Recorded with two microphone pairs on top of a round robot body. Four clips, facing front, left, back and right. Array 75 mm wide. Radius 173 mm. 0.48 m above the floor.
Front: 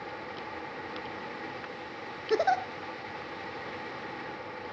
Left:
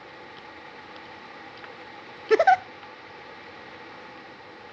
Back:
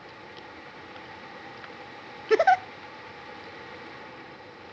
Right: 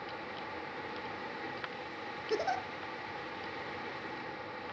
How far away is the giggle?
About 0.5 m.